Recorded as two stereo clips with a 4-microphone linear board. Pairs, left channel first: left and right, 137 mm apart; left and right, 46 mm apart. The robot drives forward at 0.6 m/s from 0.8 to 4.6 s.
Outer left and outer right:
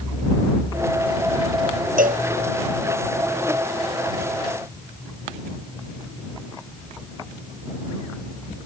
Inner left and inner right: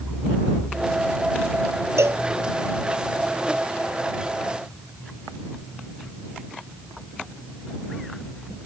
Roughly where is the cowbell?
Right.